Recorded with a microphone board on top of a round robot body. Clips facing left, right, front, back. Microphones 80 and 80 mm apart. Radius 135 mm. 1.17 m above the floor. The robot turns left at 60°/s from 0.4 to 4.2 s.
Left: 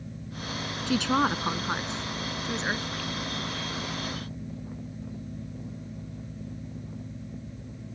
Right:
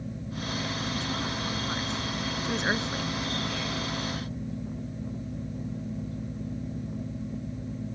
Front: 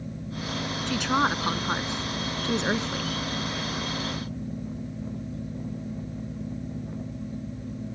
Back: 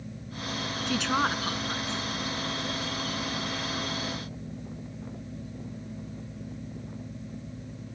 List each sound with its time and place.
0.9 s a woman speaking: 95° left; by 3.1 s 40° right